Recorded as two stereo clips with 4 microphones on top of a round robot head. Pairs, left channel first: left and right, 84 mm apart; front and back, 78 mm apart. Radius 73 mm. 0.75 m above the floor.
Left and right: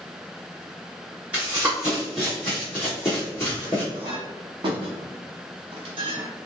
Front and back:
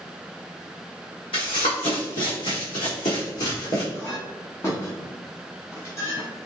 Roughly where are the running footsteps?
Ahead.